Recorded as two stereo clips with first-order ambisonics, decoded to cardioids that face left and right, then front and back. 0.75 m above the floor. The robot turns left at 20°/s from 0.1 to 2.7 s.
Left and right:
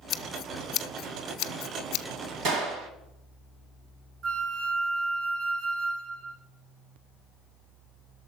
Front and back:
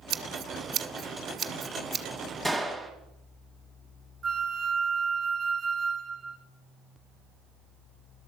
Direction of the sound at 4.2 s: 120° right.